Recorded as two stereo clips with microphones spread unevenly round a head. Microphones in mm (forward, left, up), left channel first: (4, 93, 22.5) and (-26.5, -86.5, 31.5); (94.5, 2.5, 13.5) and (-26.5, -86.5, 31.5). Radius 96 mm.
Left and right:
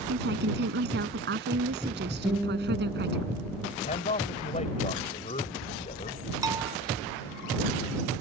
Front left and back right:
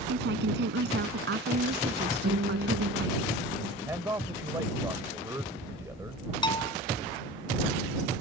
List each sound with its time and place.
0.1 s a woman speaking: 135° right
2.2 s a guitar: straight behind
3.9 s a man speaking: 140° left
6.4 s a bell: 25° right